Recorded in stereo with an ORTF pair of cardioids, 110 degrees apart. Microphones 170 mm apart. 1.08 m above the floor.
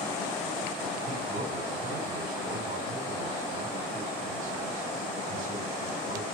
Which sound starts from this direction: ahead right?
A man speaking, at 1.1 s.